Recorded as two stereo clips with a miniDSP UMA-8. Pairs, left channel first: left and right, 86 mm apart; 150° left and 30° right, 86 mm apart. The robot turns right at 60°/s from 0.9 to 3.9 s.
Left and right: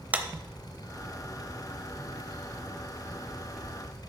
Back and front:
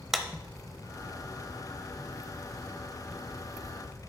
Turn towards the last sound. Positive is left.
turn(degrees=65)